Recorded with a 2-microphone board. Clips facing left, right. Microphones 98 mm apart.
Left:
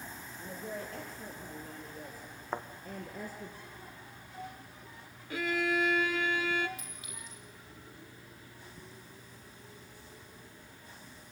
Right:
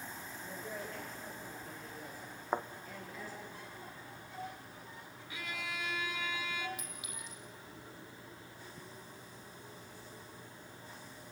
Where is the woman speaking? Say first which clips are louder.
Left 4 dB; 40° left (ahead or behind), 4.5 m; by 3.5 s 50° left (ahead or behind), 2 m.